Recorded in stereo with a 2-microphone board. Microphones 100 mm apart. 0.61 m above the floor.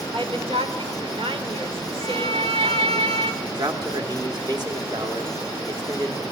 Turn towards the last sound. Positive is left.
turn(degrees=-40)  # may be behind; listen again after turning